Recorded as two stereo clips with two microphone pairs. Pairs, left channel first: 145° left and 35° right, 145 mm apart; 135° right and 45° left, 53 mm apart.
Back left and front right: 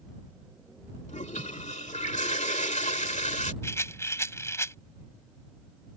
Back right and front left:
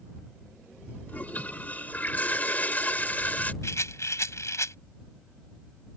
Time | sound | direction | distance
1.1 | a toilet flushing | 165° left | ?
3.6 | a rattle | 150° right | ?